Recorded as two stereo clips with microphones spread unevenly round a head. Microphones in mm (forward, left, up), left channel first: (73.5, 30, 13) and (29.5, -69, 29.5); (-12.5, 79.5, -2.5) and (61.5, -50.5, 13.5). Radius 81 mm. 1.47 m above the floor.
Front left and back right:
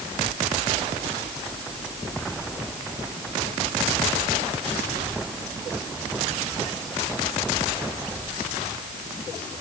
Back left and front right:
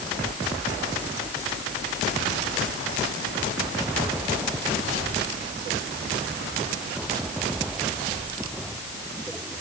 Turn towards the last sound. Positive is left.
No sound to turn to.